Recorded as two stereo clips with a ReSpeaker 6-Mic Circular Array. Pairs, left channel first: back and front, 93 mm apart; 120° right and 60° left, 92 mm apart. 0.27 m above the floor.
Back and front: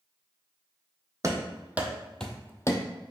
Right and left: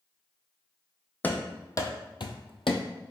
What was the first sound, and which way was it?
Running footsteps, 50° right.